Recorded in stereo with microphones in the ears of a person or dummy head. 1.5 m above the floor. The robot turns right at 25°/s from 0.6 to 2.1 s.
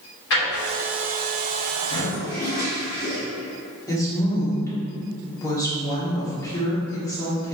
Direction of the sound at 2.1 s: 20° left (ahead or behind).